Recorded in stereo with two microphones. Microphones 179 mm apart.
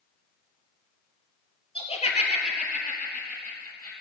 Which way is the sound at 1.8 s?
30° left (ahead or behind).